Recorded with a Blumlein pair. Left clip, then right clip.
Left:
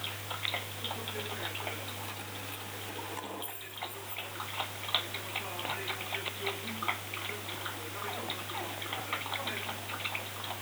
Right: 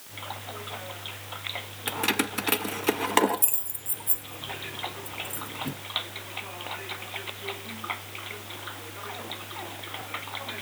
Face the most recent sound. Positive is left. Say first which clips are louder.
# right 13 dB
turn(degrees=-50)